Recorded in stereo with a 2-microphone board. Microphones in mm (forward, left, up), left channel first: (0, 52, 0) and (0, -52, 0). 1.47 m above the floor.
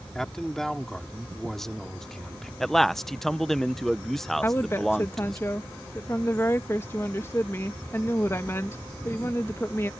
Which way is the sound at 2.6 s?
5° left (ahead or behind).